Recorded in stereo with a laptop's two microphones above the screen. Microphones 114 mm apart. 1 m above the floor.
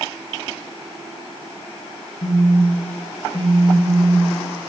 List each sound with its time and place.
2.2 s a phone buzzing: 60° left (ahead or behind), 0.6 m